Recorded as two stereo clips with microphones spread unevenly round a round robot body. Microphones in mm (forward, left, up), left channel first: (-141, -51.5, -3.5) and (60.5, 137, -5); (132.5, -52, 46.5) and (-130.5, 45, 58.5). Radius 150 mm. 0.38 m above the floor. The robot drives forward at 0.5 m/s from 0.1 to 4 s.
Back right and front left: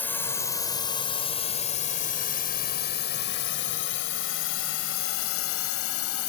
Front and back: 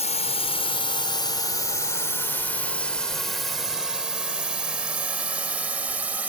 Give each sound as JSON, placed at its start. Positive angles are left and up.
{"t": 0.0, "sound": "a drone", "azimuth_deg": -60}